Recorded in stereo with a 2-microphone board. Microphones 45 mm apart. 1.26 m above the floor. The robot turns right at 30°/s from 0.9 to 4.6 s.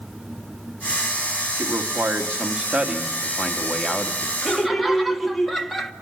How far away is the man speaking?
About 2 m.